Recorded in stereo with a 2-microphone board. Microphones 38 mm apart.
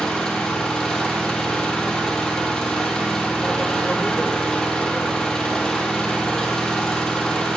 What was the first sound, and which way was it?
An engine running, 20° left (ahead or behind).